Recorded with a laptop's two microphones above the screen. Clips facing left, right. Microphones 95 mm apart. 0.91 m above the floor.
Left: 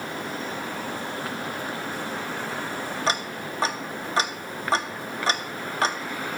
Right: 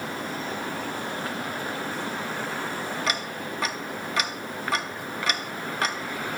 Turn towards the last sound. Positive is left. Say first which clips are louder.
# left 2 dB
turn(degrees=30)  # may be behind; listen again after turning